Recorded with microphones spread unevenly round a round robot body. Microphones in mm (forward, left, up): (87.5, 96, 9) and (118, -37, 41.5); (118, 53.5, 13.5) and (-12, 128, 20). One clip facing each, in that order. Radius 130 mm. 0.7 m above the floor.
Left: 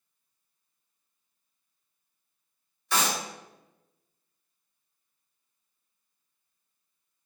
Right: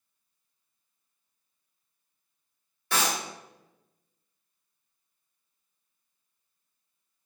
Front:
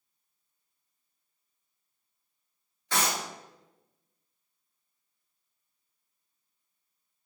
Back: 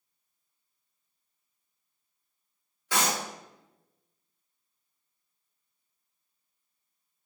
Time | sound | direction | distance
2.9 | a clap | 125° right | 1.4 m